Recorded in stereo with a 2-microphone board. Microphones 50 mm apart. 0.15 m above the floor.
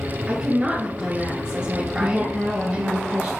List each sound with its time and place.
0.3 s a woman speaking: 20° right (ahead or behind), 2 m
2.0 s a woman speaking: 15° right (ahead or behind), 1.8 m